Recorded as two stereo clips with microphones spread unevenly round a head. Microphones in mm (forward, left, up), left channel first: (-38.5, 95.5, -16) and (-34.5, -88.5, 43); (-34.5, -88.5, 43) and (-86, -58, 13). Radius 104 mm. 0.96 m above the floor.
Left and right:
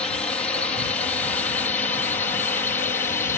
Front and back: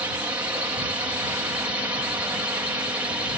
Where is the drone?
155° left; by 3.4 s 145° left.